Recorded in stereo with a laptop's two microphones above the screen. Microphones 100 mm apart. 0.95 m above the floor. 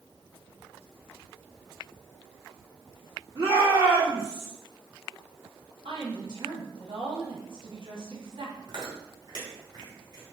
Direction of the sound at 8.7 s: 50° right (ahead or behind).